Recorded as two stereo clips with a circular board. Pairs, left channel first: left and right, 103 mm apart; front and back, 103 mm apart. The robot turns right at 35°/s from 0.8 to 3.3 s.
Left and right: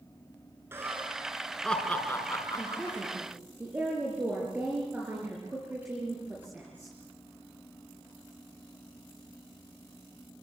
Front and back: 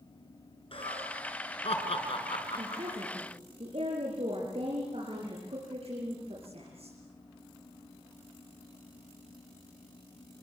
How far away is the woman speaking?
About 6.5 m.